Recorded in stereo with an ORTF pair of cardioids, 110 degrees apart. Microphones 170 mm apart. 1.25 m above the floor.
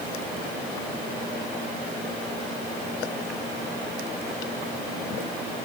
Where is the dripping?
I don't hear dripping.